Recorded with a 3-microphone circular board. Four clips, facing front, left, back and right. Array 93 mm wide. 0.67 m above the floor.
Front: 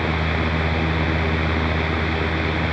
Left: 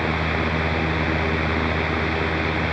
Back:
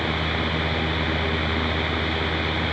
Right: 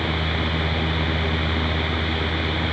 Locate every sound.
Only background noise.